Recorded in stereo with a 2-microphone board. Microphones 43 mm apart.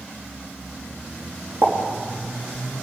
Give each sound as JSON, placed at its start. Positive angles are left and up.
{"t": 1.6, "sound": "a pop", "side_deg": -70, "distance_m": 2.0}